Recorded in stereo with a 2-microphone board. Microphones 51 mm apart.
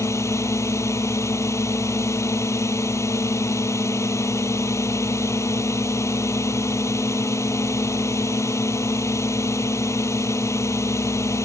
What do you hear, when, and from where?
0.0 s a drone: 70° left (ahead or behind)